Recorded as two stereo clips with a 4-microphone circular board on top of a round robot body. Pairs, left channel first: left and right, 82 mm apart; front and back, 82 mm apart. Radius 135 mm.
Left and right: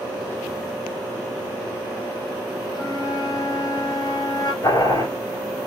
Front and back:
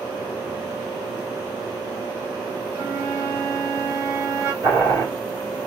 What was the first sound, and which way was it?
A flute, 125° left.